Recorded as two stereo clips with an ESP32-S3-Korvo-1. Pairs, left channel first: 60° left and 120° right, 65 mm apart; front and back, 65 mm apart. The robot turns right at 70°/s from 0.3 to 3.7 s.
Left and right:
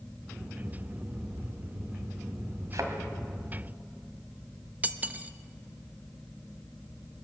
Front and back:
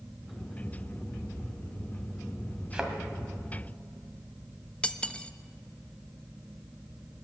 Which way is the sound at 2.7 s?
110° right.